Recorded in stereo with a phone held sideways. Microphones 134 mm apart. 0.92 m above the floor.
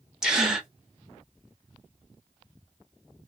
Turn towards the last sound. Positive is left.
turn(degrees=-5)  # may be behind; listen again after turning